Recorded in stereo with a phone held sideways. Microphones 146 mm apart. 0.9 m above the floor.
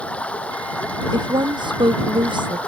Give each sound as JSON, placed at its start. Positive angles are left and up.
{"t": 0.0, "sound": "running water", "side_deg": 10}
{"t": 1.1, "sound": "a woman speaking", "side_deg": -30}